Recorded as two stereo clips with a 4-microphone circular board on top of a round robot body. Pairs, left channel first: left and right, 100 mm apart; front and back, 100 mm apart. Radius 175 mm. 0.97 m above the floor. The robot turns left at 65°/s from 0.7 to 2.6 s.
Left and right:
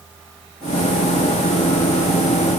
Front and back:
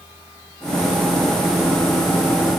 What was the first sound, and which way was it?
Only background noise.